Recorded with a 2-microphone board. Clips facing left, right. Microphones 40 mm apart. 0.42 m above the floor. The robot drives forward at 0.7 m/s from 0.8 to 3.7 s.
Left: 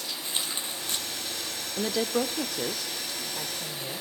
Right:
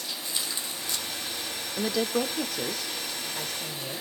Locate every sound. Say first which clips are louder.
0.2 s tearing paper: left 2 dB; 35° left (ahead or behind), 2.5 m
1.8 s a woman speaking: even; centre (ahead or behind), 0.8 m